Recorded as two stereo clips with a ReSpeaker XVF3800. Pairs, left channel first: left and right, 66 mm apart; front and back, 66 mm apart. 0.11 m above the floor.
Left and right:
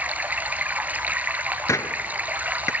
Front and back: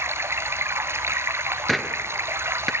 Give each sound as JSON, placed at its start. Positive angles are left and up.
{"t": 0.0, "sound": "running water", "azimuth_deg": -145, "distance_m": 1.3}
{"t": 1.7, "sound": "a gunshot", "azimuth_deg": 90, "distance_m": 0.6}